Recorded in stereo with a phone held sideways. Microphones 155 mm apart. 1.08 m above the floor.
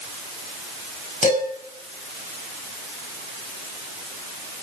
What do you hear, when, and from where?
1.2 s dishes clattering: 60° left (ahead or behind), 6.5 m